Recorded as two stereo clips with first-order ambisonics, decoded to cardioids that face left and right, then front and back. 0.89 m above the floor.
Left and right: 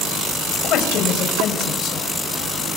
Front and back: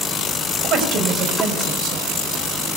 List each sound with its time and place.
0.5 s a woman speaking: 140° left, 5 m